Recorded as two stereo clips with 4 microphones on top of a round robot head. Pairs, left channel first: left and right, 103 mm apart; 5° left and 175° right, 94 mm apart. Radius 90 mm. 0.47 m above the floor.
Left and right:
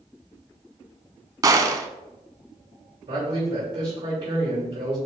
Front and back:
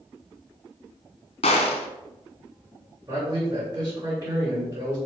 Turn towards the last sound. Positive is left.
turn(degrees=-115)